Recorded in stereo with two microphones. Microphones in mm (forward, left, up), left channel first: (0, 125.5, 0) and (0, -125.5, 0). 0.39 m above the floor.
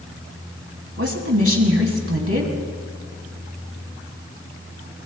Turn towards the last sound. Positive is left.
turn(degrees=-60)  # may be behind; listen again after turning